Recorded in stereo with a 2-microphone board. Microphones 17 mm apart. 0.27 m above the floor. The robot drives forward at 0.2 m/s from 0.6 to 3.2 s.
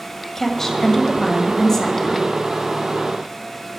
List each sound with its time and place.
0.3 s a woman speaking: 25° left (ahead or behind), 1.6 m; by 2.3 s 20° left (ahead or behind), 1.7 m